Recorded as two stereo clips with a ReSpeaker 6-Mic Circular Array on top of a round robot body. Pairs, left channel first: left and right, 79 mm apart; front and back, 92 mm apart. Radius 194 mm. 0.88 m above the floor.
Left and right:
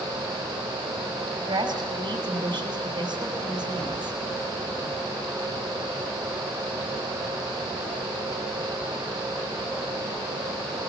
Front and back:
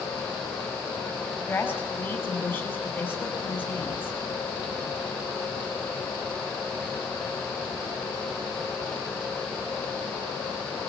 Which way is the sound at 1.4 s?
75° right.